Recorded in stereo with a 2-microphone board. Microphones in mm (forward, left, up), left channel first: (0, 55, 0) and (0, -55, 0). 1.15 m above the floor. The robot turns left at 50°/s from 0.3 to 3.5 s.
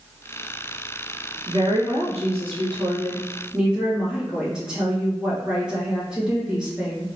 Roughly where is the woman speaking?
Right.